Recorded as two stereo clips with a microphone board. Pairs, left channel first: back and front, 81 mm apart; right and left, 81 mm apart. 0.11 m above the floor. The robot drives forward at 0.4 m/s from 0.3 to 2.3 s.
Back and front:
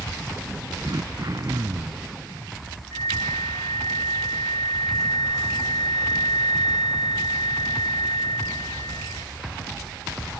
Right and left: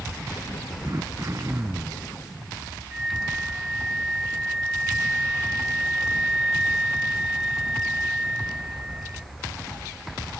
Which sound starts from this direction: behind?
A flute, at 2.9 s.